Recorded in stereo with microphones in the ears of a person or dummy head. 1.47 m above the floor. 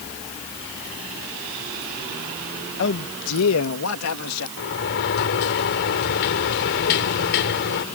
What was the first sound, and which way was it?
A man speaking, 60° left (ahead or behind).